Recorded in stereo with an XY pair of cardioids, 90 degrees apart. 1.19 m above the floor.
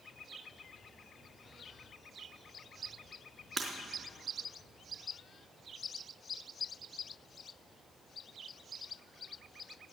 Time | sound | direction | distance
3.6 | breaking glass | 30° right | 3.5 m